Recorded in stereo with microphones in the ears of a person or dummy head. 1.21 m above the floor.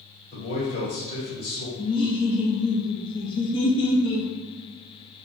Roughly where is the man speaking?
Left.